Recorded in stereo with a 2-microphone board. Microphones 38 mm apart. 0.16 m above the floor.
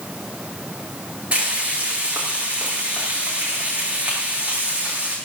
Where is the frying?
35° right (ahead or behind), 8.5 m.